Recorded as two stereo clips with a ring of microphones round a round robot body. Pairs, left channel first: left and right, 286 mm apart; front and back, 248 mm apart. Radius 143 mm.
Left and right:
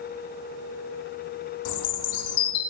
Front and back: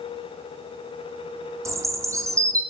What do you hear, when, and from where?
1.6 s a bird: 105° left, 2.5 m